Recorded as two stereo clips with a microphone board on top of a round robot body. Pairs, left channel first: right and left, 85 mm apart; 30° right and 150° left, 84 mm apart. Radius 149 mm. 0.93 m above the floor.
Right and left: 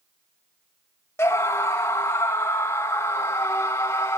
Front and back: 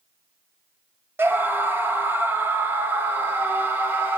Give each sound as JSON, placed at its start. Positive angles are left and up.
{"t": 1.2, "sound": "a scream", "azimuth_deg": -150, "distance_m": 1.7}